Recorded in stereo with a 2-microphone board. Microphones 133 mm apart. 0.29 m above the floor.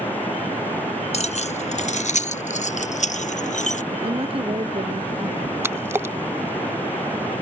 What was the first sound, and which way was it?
Keys jangling, 55° left (ahead or behind).